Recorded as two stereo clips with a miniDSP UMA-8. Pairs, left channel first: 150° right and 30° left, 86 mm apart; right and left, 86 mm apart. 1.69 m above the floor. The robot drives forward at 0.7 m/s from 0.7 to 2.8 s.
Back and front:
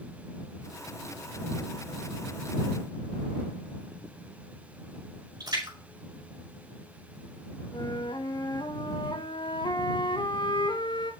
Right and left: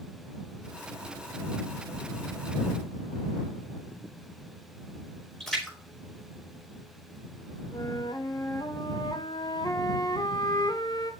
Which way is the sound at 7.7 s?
125° right.